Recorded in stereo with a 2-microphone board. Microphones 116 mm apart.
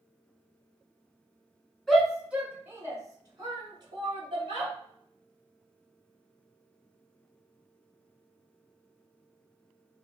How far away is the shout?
About 1.2 m.